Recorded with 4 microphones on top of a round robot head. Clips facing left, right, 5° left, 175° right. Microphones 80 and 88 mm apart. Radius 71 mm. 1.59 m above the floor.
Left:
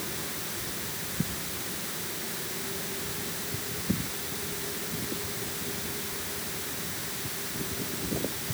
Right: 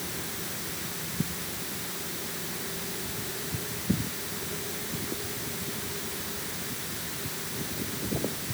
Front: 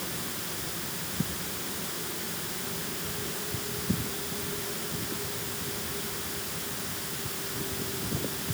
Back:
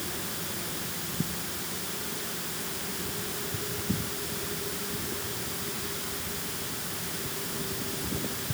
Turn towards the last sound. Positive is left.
No sound to turn to.